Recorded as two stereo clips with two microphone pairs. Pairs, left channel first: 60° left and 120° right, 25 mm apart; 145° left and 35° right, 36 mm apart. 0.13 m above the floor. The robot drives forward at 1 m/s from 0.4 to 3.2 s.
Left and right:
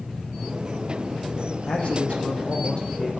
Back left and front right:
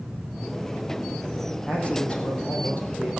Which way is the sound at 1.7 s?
80° left.